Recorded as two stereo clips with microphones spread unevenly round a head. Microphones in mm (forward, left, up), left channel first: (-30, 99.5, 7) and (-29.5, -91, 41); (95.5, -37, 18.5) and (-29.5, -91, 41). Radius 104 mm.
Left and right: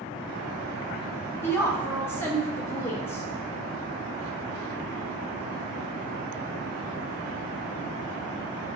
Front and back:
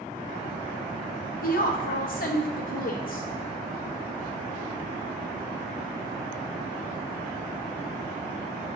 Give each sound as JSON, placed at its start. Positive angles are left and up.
{"t": 1.4, "sound": "a woman speaking", "azimuth_deg": 10, "distance_m": 1.2}